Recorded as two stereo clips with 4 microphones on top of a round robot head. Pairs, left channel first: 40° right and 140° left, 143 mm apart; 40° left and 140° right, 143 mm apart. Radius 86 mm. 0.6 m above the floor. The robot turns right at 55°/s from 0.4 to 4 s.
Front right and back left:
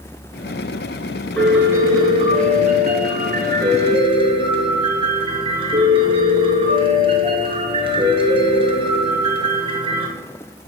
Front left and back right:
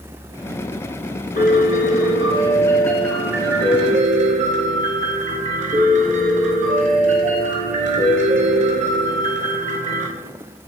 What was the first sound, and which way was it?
A piano, 40° left.